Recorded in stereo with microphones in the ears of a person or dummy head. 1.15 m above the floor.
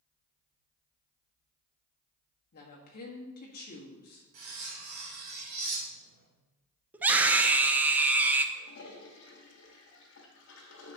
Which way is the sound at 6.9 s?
10° right (ahead or behind).